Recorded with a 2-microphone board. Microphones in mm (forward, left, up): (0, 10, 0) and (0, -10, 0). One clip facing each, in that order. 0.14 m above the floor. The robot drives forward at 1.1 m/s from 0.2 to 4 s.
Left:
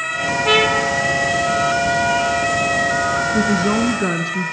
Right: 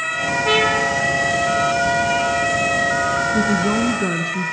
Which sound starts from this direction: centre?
A trumpet, at 0.5 s.